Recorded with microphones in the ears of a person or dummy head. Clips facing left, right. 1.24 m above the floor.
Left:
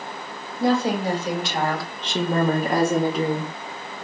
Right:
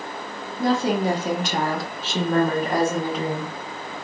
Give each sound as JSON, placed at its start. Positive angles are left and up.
{"t": 0.6, "sound": "a woman speaking", "side_deg": -55, "distance_m": 1.1}